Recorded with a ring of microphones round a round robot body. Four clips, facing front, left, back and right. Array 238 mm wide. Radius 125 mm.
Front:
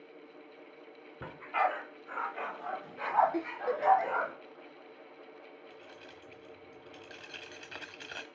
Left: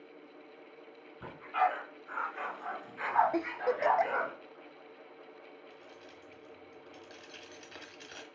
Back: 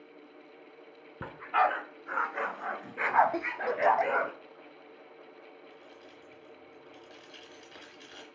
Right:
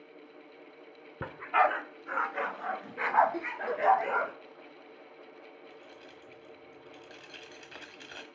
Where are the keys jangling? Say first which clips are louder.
Right 2 dB, even; 15° right, 1.1 m.